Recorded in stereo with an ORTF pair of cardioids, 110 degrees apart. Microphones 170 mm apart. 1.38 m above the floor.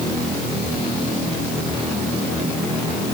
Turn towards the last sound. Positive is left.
No sound to turn to.